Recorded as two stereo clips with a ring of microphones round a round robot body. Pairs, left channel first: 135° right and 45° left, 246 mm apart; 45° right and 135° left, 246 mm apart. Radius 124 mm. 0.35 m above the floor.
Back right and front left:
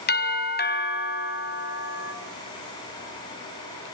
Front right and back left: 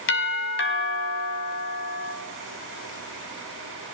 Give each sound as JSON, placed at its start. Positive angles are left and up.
{"t": 0.1, "sound": "a doorbell", "azimuth_deg": -85, "distance_m": 3.5}